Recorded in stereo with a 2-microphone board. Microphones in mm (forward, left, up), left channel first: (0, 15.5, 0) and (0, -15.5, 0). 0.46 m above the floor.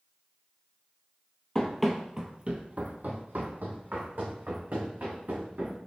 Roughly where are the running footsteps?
Centre.